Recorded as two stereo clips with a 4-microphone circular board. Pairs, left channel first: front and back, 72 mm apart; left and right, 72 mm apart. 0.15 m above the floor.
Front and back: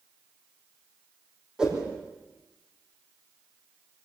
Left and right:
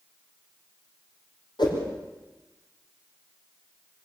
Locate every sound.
1.6 s a whoosh: 100° left, 5 m